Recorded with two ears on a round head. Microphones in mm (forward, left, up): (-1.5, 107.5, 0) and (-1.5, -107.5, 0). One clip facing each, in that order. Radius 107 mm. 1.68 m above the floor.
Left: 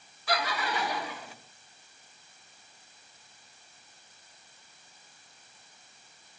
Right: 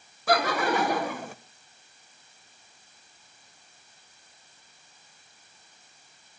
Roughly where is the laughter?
Right.